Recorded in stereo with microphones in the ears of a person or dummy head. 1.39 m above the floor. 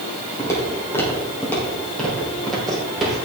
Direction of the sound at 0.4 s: 20° left (ahead or behind).